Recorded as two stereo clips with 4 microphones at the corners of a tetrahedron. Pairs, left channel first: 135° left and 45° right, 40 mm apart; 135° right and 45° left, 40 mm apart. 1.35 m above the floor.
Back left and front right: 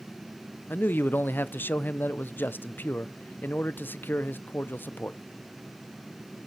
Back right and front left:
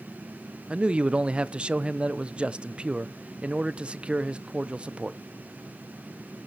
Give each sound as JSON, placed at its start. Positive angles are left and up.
{"t": 0.7, "sound": "a man speaking", "azimuth_deg": 110, "distance_m": 0.5}